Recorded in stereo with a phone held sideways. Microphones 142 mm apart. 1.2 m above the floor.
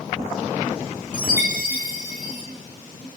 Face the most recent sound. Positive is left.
turn(degrees=70)  # may be behind; listen again after turning